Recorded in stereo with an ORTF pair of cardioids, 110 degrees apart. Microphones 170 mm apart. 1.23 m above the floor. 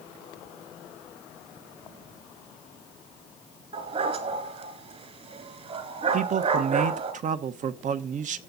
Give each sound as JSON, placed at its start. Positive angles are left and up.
{"t": 3.7, "sound": "a dog barking", "azimuth_deg": -40, "distance_m": 3.0}
{"t": 6.1, "sound": "a man speaking", "azimuth_deg": -50, "distance_m": 1.1}